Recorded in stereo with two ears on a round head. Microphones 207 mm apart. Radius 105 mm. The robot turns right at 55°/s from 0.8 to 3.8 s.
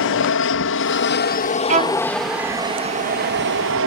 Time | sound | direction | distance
0.0 | an aircraft | 100° left | ?
1.7 | a violin | 35° right (ahead or behind) | ?